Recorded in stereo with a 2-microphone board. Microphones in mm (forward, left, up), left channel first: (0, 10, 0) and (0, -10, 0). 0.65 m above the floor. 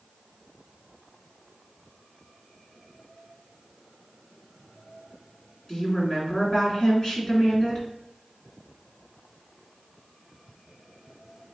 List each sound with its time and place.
5.7 s a woman speaking: 40° left (ahead or behind), 2 m